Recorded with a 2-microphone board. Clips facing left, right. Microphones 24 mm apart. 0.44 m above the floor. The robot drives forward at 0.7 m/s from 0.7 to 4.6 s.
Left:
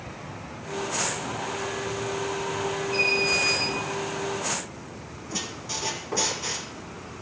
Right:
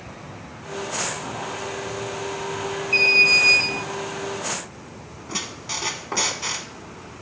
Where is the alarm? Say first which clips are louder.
Right 9 dB; 45° right (ahead or behind), 6 m; by 3.7 s 50° right (ahead or behind), 5.5 m.